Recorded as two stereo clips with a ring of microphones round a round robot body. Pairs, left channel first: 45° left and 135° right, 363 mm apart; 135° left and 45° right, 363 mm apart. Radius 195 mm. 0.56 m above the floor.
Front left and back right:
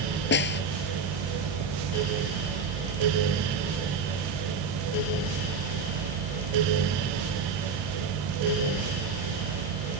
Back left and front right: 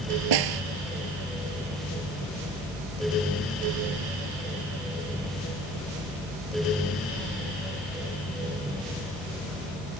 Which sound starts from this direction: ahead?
A snare drum, at 0.3 s.